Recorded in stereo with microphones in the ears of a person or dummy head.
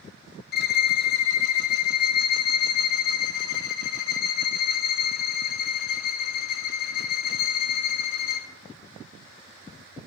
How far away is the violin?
About 0.8 m.